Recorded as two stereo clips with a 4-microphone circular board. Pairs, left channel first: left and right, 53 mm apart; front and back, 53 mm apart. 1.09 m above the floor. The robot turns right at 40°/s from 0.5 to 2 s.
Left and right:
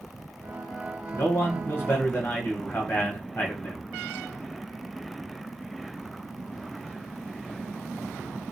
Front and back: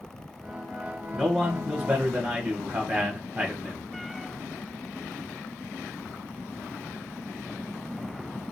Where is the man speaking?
90° left, 1.0 m; by 3.8 s 125° left, 1.0 m.